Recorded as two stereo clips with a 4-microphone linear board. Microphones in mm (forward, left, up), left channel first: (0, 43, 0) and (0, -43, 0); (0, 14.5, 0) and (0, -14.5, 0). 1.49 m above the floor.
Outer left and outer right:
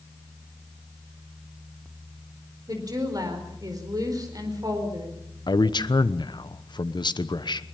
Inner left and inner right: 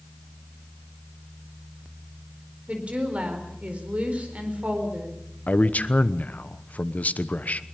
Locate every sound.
2.7 s a woman speaking: 45° right (ahead or behind), 4.5 m
5.5 s a man speaking: 60° left (ahead or behind), 1.0 m